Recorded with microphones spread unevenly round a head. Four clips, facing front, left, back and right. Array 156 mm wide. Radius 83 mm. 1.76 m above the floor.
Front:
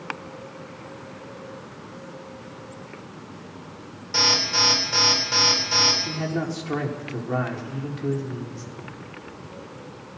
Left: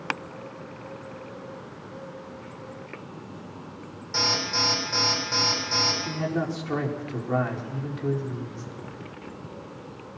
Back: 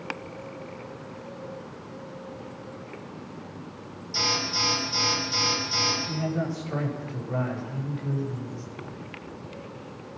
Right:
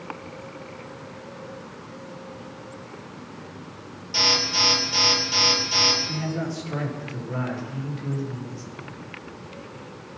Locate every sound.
4.1 s an alarm: 10° left, 9.5 m
6.0 s a man speaking: 30° left, 5.5 m